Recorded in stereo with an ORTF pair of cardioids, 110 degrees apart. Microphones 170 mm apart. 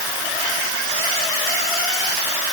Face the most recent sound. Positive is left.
No sound to turn to.